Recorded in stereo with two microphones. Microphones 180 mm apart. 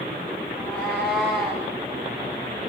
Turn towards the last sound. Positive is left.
turn(degrees=5)  # may be behind; listen again after turning